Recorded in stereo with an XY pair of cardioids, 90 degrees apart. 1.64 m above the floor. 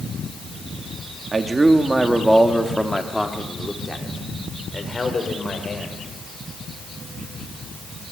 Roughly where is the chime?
No chime in this recording.